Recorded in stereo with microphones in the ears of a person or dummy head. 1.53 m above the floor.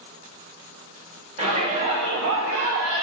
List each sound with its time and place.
1.4 s a shout: 35° right (ahead or behind), 0.8 m; by 3.0 s 80° right, 0.9 m